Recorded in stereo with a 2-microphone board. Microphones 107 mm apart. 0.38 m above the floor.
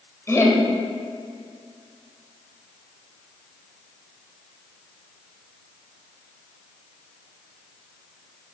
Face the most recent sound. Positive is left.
turn(degrees=25)  # may be behind; listen again after turning